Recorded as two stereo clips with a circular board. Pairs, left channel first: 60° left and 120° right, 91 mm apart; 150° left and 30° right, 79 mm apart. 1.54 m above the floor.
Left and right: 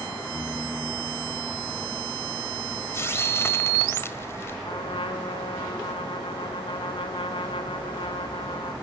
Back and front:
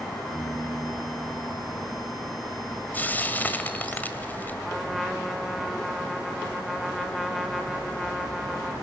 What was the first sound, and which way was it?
A piano, 5° left.